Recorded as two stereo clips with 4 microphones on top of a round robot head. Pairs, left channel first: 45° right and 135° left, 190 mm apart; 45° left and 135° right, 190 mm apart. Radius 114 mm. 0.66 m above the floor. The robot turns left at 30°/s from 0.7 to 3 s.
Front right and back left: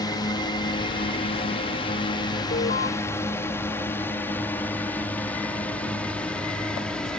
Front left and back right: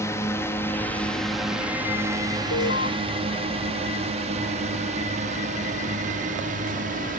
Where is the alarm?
15° left; by 2.9 s 5° left.